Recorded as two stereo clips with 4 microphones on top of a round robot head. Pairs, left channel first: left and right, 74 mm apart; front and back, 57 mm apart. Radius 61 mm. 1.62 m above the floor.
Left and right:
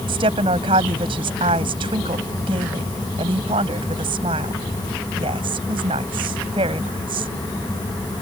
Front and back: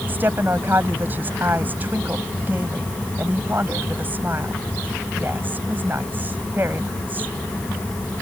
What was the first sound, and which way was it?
A woman speaking, 110° right.